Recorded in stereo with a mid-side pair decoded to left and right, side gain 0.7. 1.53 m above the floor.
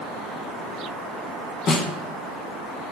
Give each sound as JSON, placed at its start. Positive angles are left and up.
{"t": 1.7, "sound": "a snare drum", "azimuth_deg": 40, "distance_m": 2.5}